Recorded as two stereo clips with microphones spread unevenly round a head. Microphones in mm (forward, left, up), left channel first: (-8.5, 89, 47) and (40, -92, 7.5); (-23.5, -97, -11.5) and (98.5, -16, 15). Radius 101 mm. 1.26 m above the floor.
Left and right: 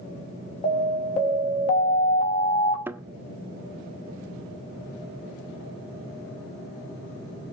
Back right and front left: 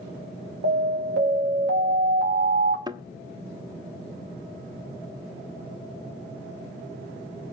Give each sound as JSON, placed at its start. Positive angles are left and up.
{"t": 0.6, "sound": "an alarm", "azimuth_deg": 45, "distance_m": 3.0}
{"t": 2.9, "sound": "a thud", "azimuth_deg": 15, "distance_m": 0.7}